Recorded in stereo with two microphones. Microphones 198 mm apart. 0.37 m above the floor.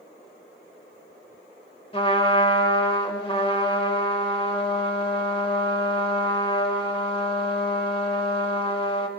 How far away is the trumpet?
About 1.0 m.